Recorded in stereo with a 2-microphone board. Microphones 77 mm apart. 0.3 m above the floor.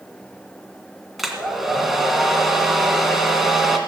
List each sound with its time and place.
1.2 s a hair dryer: centre (ahead or behind), 2 m